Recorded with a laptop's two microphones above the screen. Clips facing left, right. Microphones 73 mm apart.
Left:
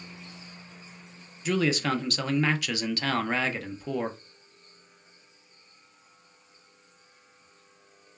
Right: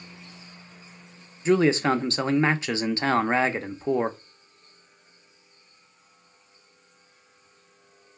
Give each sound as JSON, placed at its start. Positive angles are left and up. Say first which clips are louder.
{"t": 1.4, "sound": "a man speaking", "louder": "right 6 dB", "side_deg": -30, "distance_m": 0.5}